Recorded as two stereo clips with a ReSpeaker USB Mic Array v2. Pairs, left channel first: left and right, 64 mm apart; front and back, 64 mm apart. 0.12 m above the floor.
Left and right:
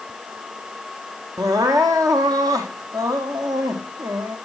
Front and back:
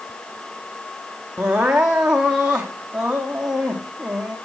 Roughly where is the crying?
Right.